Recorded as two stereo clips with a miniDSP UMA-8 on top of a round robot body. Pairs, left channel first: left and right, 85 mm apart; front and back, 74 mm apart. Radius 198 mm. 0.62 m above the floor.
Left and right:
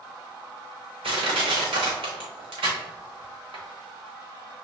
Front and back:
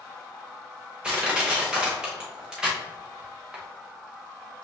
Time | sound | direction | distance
1.0 | crushing | 100° right | 0.9 m